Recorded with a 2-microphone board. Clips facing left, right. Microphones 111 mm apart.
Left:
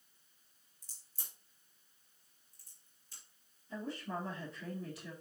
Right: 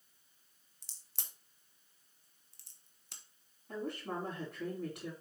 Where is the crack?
75° right (ahead or behind), 1.4 m.